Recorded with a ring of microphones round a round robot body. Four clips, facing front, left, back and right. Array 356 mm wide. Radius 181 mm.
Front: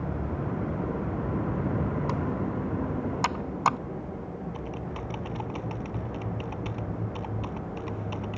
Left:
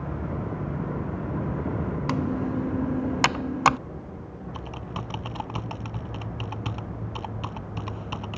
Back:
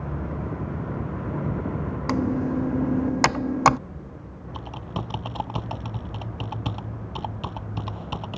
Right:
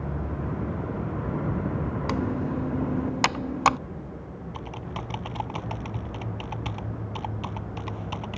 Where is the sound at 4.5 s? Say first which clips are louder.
Even, back 2 dB; 160° left.